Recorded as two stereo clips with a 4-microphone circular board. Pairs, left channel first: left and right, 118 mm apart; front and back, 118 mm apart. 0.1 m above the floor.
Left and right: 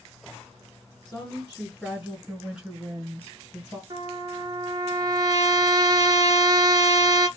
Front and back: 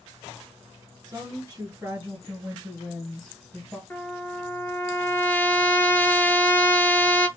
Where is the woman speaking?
150° left, 1.6 m; by 3.8 s 65° right, 1.6 m.